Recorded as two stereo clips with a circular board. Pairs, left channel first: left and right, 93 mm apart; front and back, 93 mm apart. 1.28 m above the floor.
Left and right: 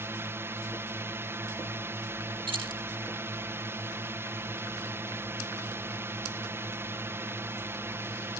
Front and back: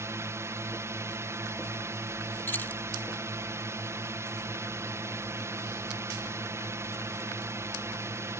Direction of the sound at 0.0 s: 140° right.